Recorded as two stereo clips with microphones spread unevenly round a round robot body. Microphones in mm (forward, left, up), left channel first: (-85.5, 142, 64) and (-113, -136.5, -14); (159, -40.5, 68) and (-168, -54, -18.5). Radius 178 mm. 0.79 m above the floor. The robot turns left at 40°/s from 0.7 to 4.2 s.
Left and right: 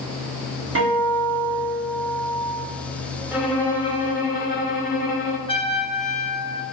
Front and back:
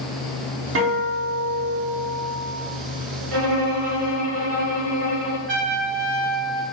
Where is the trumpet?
165° left, 1.0 m.